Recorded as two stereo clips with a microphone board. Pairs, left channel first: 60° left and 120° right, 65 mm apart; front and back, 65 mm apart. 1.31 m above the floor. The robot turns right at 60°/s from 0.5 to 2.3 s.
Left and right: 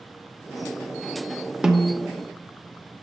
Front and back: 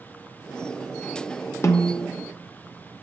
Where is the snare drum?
40° right, 0.6 m; by 2.1 s 15° right, 0.6 m.